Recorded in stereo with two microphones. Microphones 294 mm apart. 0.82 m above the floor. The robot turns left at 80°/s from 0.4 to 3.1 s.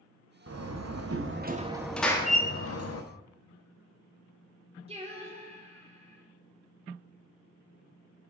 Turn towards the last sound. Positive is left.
turn(degrees=-20)  # may be behind; listen again after turning